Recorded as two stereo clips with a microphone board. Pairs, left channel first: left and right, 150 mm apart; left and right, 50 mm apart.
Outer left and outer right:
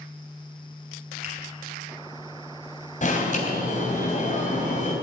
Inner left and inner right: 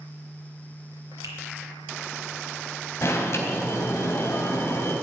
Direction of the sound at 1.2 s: 80° right.